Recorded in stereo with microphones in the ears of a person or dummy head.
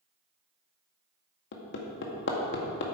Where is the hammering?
65° left (ahead or behind), 1.8 m.